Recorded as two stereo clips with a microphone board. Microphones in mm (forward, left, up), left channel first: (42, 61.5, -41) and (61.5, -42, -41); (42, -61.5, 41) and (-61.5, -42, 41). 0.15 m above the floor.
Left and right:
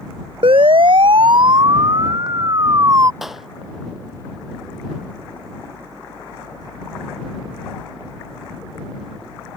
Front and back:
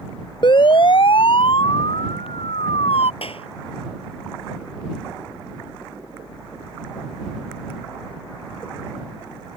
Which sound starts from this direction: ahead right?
A siren, at 0.4 s.